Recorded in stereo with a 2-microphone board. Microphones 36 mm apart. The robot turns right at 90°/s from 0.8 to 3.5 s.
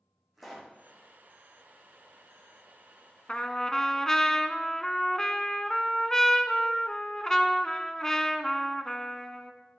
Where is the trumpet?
35° left (ahead or behind), 0.5 m; by 9.5 s 15° left (ahead or behind), 0.5 m.